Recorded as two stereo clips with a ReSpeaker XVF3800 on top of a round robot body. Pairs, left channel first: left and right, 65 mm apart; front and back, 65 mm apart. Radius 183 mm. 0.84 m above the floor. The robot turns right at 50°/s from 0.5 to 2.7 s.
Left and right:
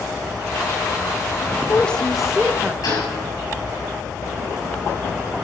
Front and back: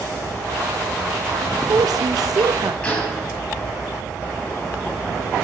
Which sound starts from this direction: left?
A gunshot, at 2.8 s.